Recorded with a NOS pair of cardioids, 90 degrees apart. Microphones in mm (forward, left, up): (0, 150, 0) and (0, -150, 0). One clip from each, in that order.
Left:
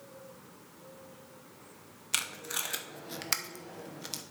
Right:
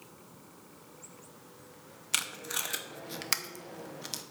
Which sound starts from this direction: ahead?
Tape being pulled, at 2.1 s.